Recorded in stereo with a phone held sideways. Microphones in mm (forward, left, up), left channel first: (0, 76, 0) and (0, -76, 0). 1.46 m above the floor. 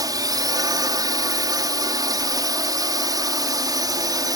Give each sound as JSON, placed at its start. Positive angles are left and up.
{"t": 0.0, "sound": "a drone", "side_deg": -25}